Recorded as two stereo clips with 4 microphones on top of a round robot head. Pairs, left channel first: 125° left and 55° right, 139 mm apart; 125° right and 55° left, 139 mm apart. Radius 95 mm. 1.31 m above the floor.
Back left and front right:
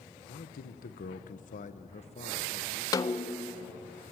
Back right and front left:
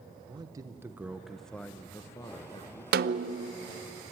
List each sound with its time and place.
0.3 s a man speaking: 110° left, 1.0 m; by 2.8 s straight behind, 1.4 m
2.9 s a snare drum: 60° left, 0.6 m